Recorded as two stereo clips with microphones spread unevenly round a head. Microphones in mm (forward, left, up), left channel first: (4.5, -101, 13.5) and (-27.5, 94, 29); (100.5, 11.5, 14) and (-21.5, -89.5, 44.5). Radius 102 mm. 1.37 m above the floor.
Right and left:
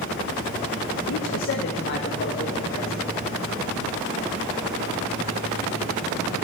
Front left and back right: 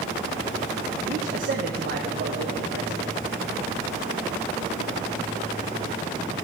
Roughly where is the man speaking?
Right.